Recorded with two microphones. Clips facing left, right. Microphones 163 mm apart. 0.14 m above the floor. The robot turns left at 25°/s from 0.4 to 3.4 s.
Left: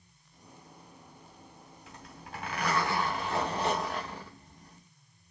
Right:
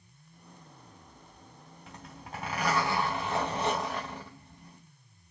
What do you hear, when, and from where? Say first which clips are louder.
1.9 s a zipper: right 2 dB; 125° right, 3.5 m; by 4.8 s 165° right, 3.5 m